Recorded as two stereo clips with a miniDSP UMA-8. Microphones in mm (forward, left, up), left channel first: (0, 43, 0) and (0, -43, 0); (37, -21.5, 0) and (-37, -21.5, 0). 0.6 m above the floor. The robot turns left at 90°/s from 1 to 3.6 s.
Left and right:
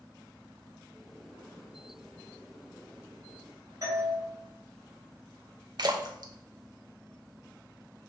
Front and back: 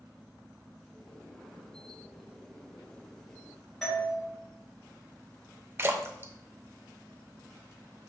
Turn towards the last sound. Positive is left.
turn(degrees=-125)